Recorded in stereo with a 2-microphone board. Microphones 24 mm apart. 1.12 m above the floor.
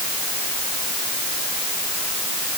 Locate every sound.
Only background noise.